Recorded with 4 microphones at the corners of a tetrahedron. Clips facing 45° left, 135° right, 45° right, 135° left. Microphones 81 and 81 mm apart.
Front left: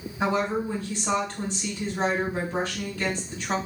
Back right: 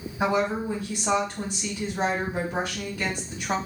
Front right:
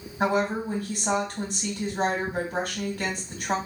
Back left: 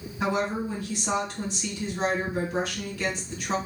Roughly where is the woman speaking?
Ahead right.